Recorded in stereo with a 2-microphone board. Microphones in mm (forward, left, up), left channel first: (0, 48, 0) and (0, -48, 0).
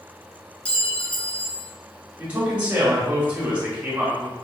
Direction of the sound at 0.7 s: 10° left (ahead or behind).